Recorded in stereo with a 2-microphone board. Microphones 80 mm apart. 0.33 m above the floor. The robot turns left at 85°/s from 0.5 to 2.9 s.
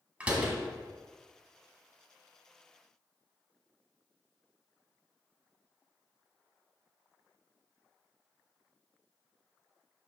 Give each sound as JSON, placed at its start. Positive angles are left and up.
{"t": 0.2, "sound": "a door slam", "side_deg": -15, "distance_m": 1.6}